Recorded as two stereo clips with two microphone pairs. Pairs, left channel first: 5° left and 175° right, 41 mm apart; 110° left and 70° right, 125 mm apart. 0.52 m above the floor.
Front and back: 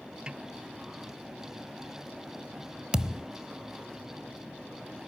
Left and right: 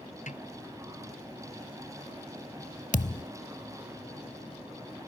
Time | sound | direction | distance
0.3 | a snare drum | 120° left | ?
2.9 | a thud | 115° left | ?